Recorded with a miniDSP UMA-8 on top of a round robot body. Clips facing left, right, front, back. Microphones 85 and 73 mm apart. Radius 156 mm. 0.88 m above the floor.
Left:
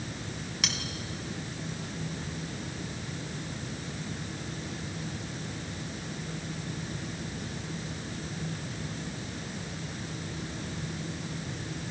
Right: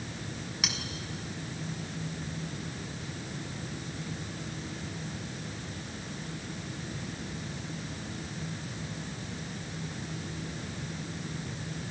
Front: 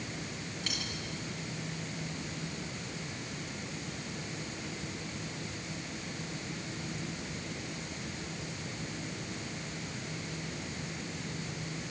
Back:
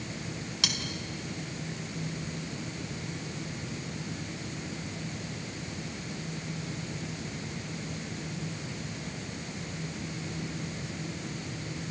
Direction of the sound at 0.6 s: 175° right.